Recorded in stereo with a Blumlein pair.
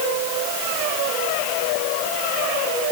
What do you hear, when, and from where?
Only background noise.